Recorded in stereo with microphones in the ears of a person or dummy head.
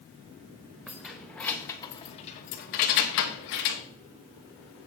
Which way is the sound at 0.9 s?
5° right (ahead or behind).